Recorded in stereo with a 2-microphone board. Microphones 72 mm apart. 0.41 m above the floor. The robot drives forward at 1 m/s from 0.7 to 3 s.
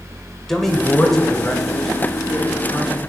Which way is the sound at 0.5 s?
5° left (ahead or behind).